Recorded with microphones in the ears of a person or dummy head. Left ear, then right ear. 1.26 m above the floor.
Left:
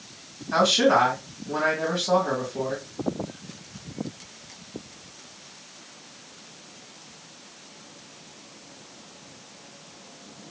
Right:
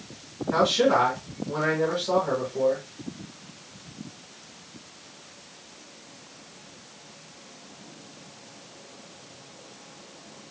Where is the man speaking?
15° left (ahead or behind), 2 m.